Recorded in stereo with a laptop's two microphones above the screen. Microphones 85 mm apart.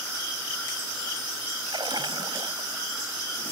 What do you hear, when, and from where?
1.7 s a splash: 70° right (ahead or behind)